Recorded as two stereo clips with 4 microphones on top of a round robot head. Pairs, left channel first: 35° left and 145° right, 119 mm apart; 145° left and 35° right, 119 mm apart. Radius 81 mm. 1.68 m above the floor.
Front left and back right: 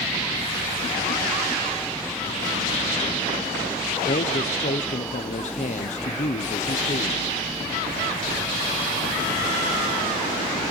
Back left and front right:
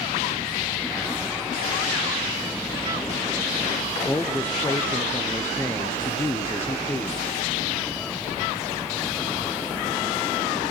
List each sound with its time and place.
4.0 s a man speaking: 70° left, 0.6 m